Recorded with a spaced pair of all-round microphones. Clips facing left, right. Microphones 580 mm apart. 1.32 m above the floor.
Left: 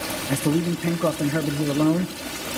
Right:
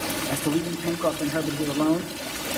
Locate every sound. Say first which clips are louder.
0.3 s a man speaking: left 4 dB; 50° left (ahead or behind), 0.5 m